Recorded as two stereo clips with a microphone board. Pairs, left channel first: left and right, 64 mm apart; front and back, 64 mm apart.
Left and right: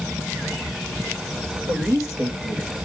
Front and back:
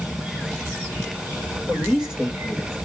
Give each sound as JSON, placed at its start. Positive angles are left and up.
{"t": 1.7, "sound": "a woman speaking", "azimuth_deg": -105, "distance_m": 7.0}